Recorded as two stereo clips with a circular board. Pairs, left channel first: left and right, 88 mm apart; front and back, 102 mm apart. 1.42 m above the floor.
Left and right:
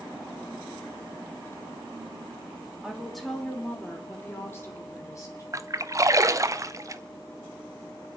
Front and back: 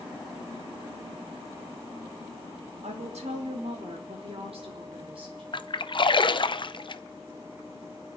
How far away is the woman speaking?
About 2 m.